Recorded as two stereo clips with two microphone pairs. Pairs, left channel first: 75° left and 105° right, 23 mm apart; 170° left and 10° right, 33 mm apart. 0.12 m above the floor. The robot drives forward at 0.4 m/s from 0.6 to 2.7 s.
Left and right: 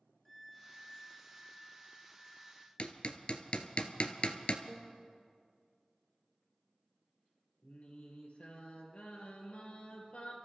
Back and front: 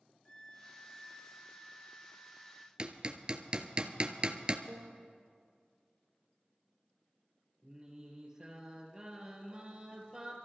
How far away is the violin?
About 1.2 m.